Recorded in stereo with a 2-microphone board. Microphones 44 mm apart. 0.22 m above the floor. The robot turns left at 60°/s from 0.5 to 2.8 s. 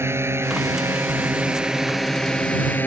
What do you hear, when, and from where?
0.0 s a drone: 70° right (ahead or behind); by 2.9 s 40° left (ahead or behind)